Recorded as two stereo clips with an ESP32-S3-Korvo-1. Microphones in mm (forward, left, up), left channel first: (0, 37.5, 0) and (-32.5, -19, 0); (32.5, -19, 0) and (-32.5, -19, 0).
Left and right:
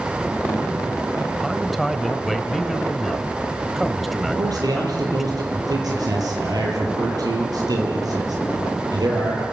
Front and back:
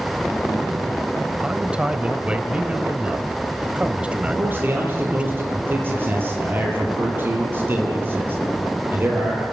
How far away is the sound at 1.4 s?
About 1.4 m.